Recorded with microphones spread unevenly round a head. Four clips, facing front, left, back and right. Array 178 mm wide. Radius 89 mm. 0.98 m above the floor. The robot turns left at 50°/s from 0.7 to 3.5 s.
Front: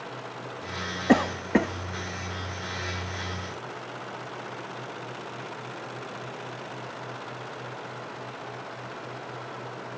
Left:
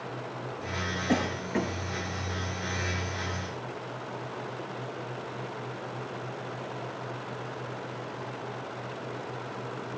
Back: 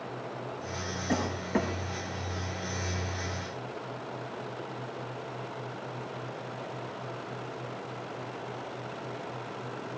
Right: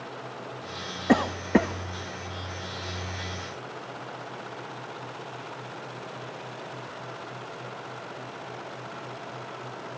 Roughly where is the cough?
Ahead right.